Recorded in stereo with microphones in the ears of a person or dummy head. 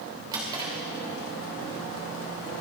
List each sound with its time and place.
0.3 s a drawer: 15° right (ahead or behind), 3 m